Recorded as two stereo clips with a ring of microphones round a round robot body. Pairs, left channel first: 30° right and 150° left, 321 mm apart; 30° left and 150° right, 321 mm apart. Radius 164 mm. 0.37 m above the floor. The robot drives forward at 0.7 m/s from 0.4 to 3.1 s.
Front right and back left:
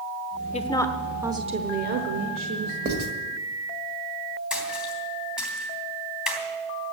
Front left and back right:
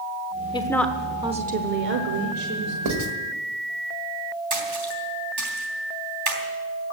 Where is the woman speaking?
15° right, 0.9 m; by 2.8 s 175° right, 1.5 m.